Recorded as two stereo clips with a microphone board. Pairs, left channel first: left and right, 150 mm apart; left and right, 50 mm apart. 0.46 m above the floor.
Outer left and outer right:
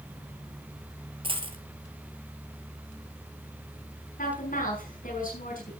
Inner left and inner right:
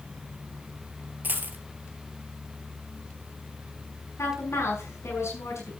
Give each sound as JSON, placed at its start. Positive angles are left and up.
{"t": 1.2, "sound": "a dropped coin", "side_deg": -35, "distance_m": 1.5}
{"t": 4.2, "sound": "a woman speaking", "side_deg": 65, "distance_m": 5.5}